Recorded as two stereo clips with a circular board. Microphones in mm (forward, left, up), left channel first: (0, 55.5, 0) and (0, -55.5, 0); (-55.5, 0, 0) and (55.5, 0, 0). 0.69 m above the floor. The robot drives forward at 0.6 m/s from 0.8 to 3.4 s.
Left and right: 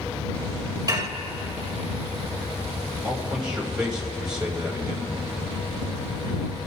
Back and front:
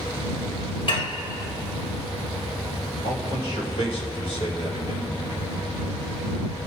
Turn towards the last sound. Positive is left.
turn(degrees=-170)